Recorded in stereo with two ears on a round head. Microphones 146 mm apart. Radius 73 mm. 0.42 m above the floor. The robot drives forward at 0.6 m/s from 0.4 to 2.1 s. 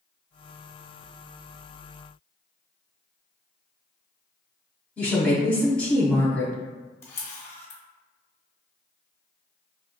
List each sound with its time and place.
5.0 s a woman speaking: 10° left (ahead or behind), 0.9 m
7.0 s a camera shutter: 15° left (ahead or behind), 0.8 m